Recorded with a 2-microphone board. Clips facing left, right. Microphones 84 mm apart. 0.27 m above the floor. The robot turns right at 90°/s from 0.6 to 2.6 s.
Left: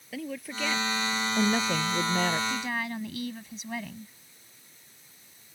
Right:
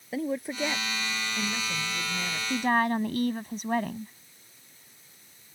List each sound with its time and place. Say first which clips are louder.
0.1 s a woman speaking: right 6 dB; 30° right; by 2.4 s 135° left
2.5 s a woman speaking: right 7 dB; 45° right (ahead or behind); by 4.1 s 50° right (ahead or behind)